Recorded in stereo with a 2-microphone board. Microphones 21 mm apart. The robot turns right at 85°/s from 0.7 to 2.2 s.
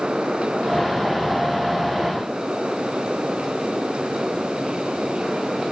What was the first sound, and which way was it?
Only background noise.